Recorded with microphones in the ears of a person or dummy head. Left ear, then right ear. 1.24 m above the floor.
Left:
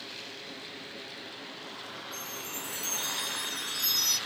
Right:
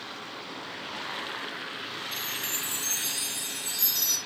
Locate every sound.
2.1 s a chime: 55° right (ahead or behind), 8 m